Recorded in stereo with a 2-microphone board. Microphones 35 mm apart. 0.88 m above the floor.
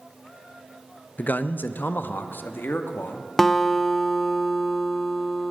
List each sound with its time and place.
1.2 s a man speaking: 50° left (ahead or behind), 0.5 m; by 3.3 s 70° left (ahead or behind), 1.5 m
3.4 s a guitar: 10° left (ahead or behind), 1.0 m